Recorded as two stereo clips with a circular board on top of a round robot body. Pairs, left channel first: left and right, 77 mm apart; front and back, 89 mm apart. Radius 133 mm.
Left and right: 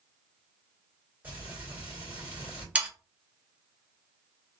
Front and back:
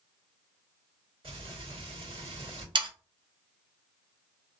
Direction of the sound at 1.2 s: 160° right.